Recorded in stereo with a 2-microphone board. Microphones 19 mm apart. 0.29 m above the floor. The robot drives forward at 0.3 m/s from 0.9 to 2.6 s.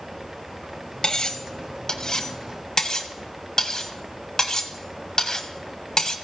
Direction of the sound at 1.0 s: 40° left (ahead or behind).